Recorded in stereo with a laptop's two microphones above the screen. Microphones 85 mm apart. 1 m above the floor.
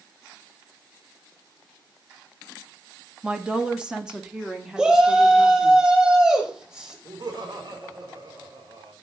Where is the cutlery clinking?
No cutlery clinking in this recording.